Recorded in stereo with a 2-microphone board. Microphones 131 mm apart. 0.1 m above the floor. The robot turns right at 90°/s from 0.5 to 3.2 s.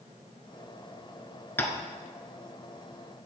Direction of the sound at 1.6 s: 15° left (ahead or behind).